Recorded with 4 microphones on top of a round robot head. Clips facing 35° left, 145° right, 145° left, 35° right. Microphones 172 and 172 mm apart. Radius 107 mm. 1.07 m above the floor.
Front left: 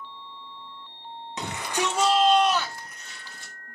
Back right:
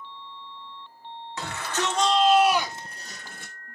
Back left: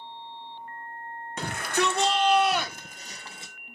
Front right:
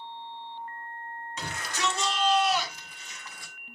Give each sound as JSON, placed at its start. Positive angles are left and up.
{"t": 1.4, "sound": "a shout", "azimuth_deg": 105, "distance_m": 1.7}